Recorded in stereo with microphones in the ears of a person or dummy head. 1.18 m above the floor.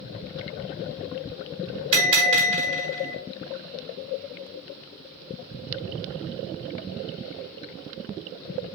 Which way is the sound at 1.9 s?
40° right (ahead or behind).